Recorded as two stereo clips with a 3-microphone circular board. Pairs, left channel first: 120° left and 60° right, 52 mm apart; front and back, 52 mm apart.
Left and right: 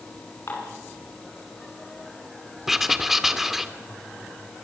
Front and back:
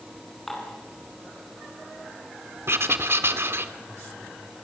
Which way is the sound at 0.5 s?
80° left.